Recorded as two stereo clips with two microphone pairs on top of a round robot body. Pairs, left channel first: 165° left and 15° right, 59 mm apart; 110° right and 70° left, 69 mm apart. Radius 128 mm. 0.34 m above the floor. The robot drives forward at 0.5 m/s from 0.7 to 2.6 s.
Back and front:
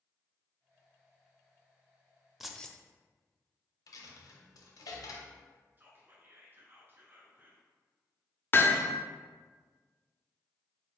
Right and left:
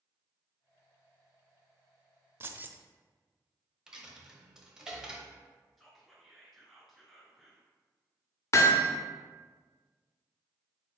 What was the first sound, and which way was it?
Keys jangling, 70° left.